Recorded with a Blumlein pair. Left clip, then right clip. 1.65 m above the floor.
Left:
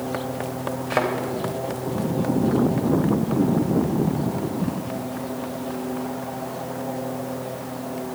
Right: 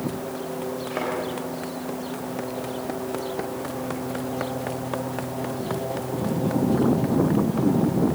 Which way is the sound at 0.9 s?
70° left.